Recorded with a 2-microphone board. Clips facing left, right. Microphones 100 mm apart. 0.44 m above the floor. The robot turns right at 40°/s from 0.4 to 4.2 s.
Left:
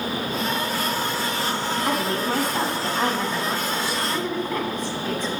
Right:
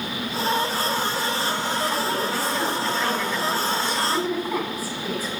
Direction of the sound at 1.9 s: 95° left.